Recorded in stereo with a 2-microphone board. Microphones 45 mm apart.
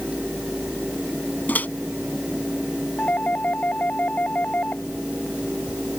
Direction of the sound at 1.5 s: 45° left (ahead or behind).